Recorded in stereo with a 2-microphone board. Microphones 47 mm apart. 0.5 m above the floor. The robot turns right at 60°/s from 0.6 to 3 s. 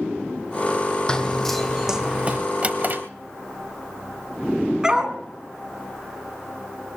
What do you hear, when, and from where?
1.1 s running footsteps: 15° left (ahead or behind), 1.0 m; by 2.4 s 40° right (ahead or behind), 1.9 m
2.6 s a drawer: 30° right (ahead or behind), 1.0 m; by 3.0 s 55° right (ahead or behind), 1.0 m
4.8 s a dog barking: 20° right (ahead or behind), 1.7 m